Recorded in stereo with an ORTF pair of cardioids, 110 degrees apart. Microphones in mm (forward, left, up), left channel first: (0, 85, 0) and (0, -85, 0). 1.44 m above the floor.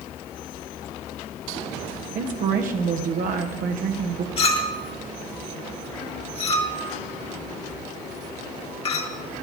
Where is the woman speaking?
60° right, 1.1 m.